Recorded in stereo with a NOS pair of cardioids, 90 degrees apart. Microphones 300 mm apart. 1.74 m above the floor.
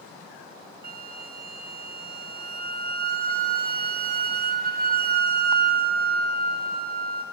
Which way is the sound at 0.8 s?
30° right.